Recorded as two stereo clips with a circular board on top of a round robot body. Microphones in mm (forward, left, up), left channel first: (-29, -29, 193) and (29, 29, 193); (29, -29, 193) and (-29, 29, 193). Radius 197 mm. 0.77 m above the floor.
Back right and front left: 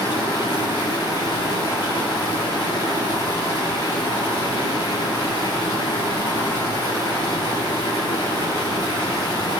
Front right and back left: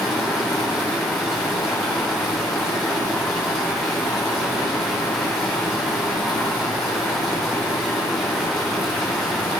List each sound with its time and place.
0.0 s running water: 130° right, 4 m